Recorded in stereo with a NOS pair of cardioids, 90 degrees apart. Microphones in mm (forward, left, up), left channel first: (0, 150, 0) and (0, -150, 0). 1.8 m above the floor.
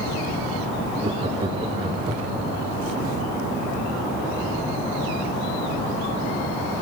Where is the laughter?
15° right, 4 m.